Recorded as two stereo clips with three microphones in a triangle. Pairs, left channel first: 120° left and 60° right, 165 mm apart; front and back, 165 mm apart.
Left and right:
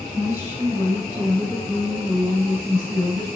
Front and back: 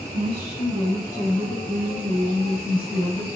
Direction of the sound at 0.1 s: 10° left.